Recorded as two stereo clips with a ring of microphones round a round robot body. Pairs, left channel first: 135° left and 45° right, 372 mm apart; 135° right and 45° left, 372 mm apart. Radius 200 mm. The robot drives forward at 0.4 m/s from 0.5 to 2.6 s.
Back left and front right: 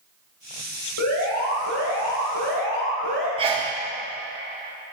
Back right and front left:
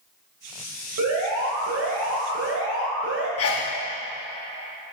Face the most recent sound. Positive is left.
turn(degrees=-115)